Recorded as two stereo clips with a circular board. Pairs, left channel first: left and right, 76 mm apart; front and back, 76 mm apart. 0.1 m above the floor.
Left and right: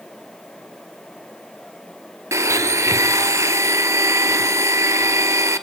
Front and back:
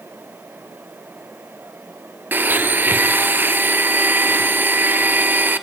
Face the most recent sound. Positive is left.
turn(degrees=-125)